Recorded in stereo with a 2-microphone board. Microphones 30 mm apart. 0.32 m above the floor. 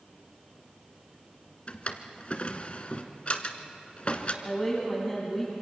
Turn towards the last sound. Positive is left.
turn(degrees=10)  # may be behind; listen again after turning